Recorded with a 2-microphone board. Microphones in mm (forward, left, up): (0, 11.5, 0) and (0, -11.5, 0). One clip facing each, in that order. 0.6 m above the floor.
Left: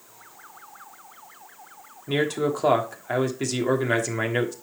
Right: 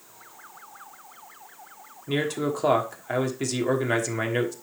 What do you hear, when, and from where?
2.1 s a man speaking: 5° left (ahead or behind), 1.3 m